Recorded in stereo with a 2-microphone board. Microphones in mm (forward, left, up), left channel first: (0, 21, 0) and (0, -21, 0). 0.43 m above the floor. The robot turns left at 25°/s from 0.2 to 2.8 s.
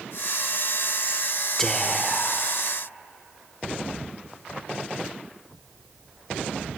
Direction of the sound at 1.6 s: 10° left (ahead or behind).